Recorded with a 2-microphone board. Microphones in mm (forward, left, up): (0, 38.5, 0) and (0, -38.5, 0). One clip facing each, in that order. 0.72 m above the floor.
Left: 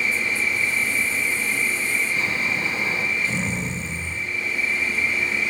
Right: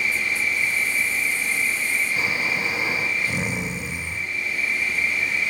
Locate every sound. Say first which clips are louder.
0.0 s an insect: left 1 dB; 20° right (ahead or behind), 4.5 m
2.2 s snoring: even; 15° right (ahead or behind), 0.6 m